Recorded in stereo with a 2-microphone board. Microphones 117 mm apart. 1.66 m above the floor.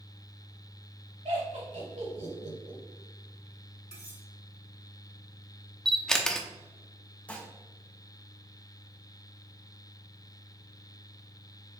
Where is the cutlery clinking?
70° left (ahead or behind), 1.9 m.